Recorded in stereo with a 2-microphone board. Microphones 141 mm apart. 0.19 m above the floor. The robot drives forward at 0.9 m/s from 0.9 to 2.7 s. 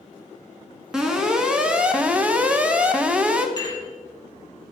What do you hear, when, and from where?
0.9 s an alarm: 5° right (ahead or behind), 1.5 m; by 3.5 s 10° right (ahead or behind), 0.9 m
3.6 s dishes clattering: 30° left (ahead or behind), 3.5 m